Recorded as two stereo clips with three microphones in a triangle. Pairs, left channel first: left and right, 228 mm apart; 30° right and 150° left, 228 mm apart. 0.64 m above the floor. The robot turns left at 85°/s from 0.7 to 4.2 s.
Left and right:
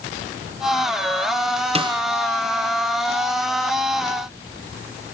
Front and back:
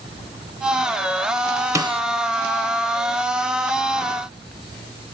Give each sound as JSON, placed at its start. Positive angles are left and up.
{"t": 1.8, "sound": "a snare drum", "azimuth_deg": -140, "distance_m": 0.9}